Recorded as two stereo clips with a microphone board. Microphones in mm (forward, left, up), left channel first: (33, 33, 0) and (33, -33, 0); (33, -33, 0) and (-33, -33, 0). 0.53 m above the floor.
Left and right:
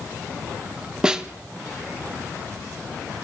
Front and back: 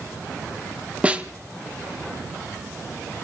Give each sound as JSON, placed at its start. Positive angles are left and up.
{"t": 1.0, "sound": "a snare drum", "azimuth_deg": -150, "distance_m": 0.8}